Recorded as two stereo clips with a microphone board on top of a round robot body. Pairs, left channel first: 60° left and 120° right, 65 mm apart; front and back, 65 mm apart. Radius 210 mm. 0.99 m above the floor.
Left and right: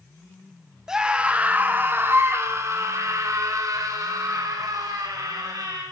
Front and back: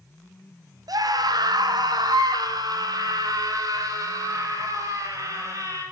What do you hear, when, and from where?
0.9 s a scream: 160° left, 3 m; by 5.8 s 140° right, 8.5 m